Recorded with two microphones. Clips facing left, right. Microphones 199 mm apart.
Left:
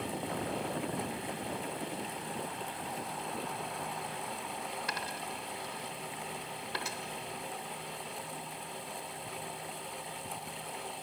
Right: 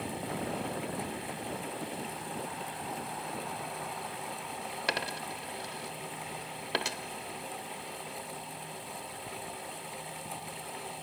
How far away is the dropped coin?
About 0.6 m.